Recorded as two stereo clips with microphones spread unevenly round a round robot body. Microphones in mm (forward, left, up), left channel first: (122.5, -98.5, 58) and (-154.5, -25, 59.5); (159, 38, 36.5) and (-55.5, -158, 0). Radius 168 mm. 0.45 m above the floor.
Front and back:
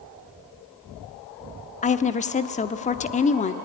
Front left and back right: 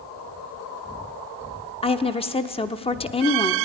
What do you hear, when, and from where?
1.8 s a woman speaking: 20° right, 0.9 m